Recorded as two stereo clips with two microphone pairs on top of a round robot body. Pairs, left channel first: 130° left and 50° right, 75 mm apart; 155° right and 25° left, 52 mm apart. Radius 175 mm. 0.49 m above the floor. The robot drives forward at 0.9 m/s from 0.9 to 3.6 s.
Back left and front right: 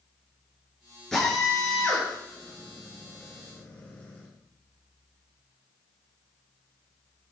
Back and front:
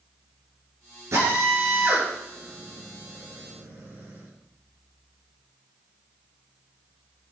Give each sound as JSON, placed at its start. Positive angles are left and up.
{"t": 1.1, "sound": "a drill", "azimuth_deg": 50, "distance_m": 7.0}